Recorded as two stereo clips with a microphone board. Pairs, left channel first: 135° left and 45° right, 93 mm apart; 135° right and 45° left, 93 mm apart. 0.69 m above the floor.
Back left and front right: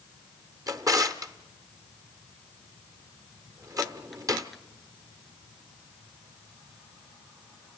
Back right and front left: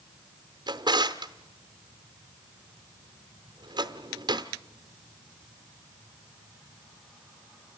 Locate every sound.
0.7 s a drawer: 5° left, 0.8 m